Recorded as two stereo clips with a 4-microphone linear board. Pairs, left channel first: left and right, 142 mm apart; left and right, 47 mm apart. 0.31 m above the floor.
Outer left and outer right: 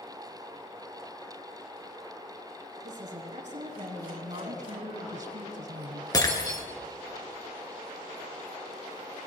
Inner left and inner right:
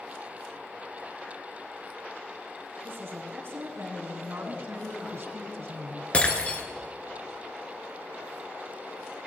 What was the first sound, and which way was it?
A woman speaking, 65° right (ahead or behind).